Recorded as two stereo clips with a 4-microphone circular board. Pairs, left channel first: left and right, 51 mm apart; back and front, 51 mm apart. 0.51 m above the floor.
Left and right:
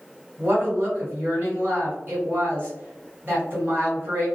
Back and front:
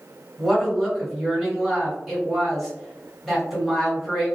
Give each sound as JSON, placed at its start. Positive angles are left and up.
{"t": 0.4, "sound": "a woman speaking", "azimuth_deg": -90, "distance_m": 1.7}